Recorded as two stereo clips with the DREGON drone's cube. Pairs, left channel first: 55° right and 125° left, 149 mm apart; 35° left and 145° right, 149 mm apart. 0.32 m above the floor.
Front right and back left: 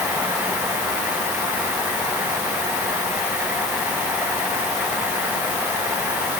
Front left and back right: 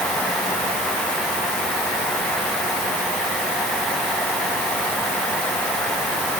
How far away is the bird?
No bird in this recording.